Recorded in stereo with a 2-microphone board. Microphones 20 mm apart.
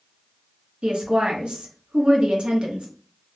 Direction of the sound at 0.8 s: 75° right (ahead or behind).